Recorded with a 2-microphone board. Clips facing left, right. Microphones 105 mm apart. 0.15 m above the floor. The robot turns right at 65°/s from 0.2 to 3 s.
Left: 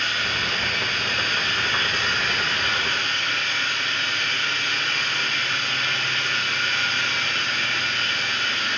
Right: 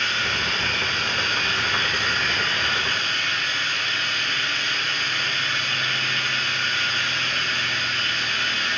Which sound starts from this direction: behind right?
Running water, at 0.0 s.